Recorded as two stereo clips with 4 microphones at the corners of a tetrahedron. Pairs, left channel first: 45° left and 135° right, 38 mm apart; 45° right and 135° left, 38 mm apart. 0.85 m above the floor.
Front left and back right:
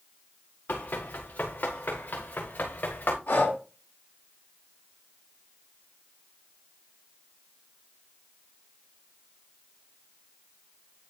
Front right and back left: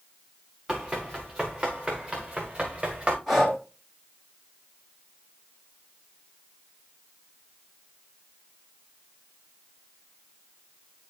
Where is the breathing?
40° left, 6.5 m.